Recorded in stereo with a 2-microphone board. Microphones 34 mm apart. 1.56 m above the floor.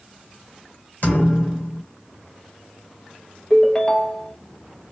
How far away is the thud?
About 2 m.